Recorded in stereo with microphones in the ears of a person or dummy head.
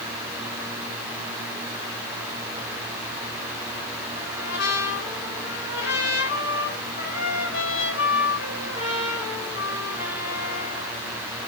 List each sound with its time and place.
4.2 s a trumpet: 70° left (ahead or behind), 6 m